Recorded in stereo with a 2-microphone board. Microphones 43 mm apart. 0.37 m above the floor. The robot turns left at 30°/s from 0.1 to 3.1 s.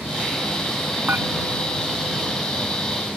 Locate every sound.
1.1 s dishes clattering: 55° right (ahead or behind); by 1.3 s 60° right (ahead or behind)